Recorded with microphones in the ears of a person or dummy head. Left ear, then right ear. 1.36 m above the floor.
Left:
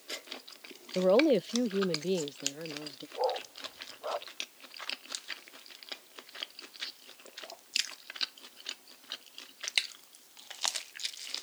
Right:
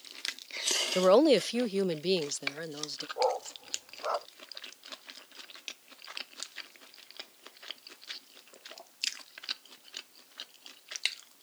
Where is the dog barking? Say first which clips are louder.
Right 2 dB; 75° right (ahead or behind).